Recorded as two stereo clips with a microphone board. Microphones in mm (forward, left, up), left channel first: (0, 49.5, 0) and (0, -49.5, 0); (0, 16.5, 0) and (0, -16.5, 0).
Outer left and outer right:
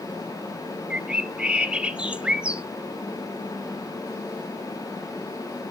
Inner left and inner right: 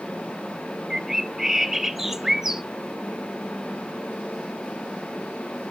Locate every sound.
0.9 s a bird: 10° right (ahead or behind), 0.6 m